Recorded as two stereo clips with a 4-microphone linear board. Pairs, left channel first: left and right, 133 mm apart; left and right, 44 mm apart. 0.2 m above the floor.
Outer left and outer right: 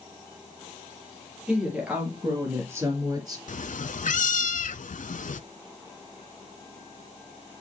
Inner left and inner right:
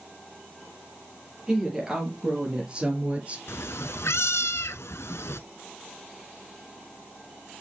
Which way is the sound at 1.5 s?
5° right (ahead or behind).